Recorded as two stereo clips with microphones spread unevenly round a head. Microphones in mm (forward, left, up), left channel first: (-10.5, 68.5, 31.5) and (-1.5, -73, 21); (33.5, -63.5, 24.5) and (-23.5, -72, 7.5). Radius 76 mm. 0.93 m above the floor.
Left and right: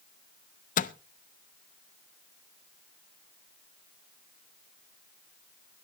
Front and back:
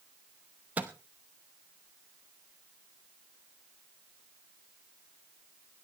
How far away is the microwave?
About 0.7 m.